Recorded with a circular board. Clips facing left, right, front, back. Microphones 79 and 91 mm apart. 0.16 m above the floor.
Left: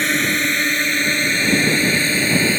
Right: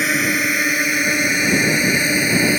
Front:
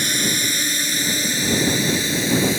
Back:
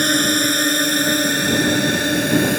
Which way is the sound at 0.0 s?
170° right.